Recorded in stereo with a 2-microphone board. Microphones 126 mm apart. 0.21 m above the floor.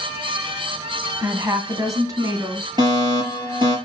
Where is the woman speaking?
25° right (ahead or behind), 1.7 m; by 2.7 s 30° right (ahead or behind), 3 m.